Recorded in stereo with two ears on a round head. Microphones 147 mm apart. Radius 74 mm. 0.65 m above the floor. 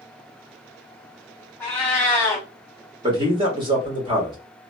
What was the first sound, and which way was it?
A cat meowing, 10° left (ahead or behind).